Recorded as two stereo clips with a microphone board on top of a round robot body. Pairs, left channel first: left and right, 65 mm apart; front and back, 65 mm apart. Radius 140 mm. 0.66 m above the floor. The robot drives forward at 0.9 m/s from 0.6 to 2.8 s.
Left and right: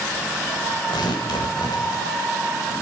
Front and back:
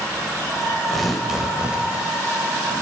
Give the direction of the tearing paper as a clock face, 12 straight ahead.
9 o'clock.